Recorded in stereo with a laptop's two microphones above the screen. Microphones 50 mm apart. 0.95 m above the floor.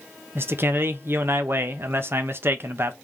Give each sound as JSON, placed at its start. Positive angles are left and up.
{"t": 0.3, "sound": "a man speaking", "side_deg": -50, "distance_m": 0.6}